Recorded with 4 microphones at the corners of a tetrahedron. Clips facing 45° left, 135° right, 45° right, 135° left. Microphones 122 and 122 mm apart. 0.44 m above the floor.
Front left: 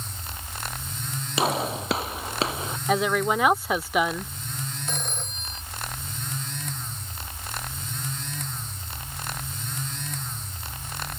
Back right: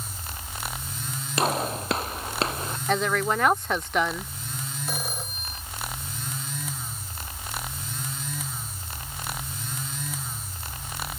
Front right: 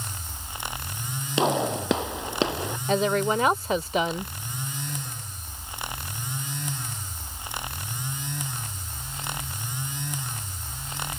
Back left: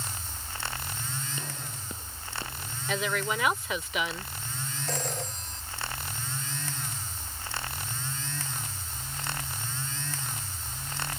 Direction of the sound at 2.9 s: 35° right.